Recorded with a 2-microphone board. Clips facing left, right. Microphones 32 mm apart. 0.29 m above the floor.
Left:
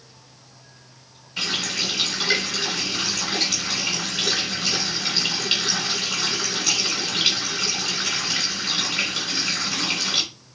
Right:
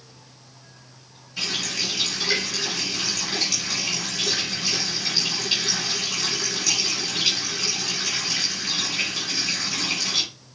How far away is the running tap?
About 1.8 m.